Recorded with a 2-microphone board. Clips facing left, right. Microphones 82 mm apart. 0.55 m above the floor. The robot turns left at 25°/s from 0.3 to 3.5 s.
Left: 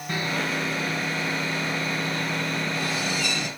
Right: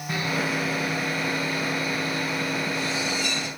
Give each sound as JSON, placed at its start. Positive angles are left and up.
{"t": 0.1, "sound": "sawing", "azimuth_deg": -175, "distance_m": 4.5}